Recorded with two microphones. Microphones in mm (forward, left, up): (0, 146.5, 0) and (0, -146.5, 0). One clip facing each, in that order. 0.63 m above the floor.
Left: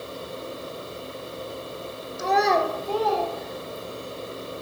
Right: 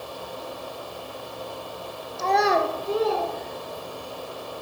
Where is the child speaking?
20° left (ahead or behind), 0.9 m; by 4.1 s 45° right (ahead or behind), 3.5 m.